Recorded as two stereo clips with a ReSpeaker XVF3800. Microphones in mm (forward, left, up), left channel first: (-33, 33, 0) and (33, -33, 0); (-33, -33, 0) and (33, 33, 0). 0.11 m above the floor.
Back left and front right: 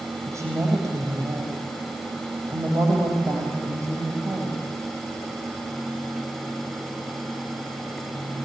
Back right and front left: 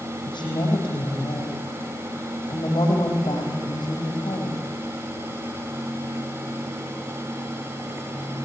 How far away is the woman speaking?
About 5 m.